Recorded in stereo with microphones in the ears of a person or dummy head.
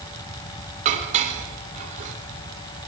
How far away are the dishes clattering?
About 3 m.